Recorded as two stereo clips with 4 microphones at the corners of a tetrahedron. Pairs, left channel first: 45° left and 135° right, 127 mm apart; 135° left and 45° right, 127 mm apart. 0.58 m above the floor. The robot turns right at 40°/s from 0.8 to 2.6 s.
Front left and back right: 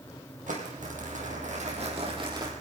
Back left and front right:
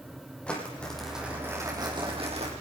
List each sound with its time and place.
0.5 s crumpling: 145° right, 4.5 m; by 2.5 s 75° right, 4.5 m